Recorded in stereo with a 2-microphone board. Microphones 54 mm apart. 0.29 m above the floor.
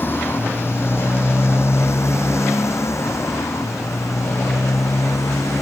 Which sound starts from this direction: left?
A motorcycle, at 0.0 s.